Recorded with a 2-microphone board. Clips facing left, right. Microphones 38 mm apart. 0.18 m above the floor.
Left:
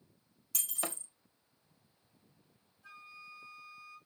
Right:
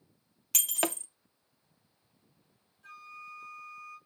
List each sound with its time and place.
0.5 s breaking glass: 70° right (ahead or behind), 0.6 m
2.8 s a flute: 55° right (ahead or behind), 2 m